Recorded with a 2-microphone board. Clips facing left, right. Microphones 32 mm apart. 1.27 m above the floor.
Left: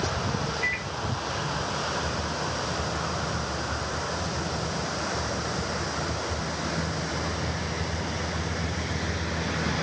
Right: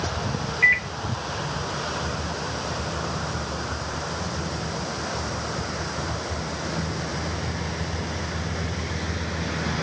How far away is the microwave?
About 0.5 m.